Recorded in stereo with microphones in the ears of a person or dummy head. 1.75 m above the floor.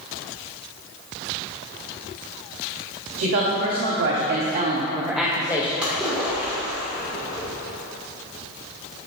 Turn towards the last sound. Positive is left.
turn(degrees=-5)  # may be behind; listen again after turning